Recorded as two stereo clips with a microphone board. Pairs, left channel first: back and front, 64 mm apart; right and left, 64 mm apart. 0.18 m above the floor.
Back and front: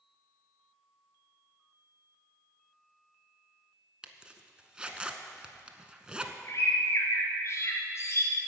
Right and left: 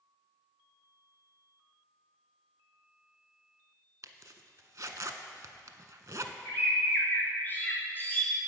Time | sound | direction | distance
4.0 | a zipper | 70° left | 0.6 m
6.5 | a bird | 145° right | 1.9 m